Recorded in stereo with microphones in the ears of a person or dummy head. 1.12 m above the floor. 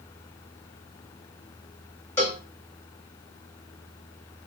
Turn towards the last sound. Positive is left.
turn(degrees=10)  # may be behind; listen again after turning